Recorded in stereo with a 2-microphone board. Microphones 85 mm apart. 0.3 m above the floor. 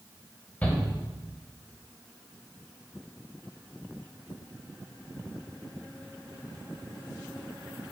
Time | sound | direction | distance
0.6 | a shout | 20° left (ahead or behind) | 1.8 m